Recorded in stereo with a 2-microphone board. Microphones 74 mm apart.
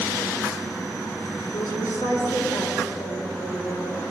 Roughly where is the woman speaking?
Left.